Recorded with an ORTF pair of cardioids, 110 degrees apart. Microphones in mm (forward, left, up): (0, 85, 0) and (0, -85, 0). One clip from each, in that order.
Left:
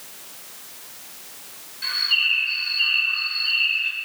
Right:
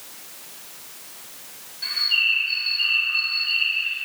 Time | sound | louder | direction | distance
1.8 | a bird | even | 25° left | 2 m